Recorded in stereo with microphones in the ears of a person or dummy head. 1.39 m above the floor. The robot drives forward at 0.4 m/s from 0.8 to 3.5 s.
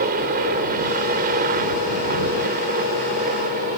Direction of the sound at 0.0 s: 45° right (ahead or behind).